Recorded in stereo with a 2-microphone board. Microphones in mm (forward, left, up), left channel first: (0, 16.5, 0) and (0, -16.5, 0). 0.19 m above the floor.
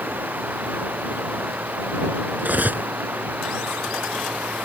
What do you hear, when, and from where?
0.0 s running water: 65° right (ahead or behind)
2.4 s cutlery clinking: 60° right (ahead or behind)